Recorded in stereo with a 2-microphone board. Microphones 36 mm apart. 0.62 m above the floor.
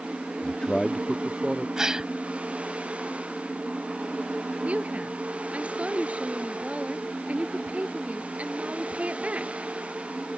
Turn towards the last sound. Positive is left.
turn(degrees=-40)  # may be behind; listen again after turning